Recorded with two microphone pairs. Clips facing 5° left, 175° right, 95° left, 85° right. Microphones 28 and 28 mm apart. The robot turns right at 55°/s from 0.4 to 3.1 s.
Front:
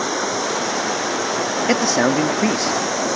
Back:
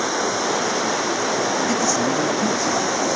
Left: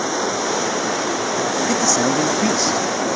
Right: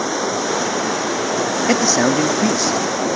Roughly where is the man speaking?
Ahead right.